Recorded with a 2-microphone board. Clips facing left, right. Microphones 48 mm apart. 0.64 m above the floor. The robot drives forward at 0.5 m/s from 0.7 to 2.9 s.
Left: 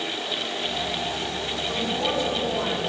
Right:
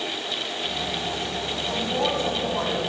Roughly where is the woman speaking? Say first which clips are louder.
Right 2 dB; right.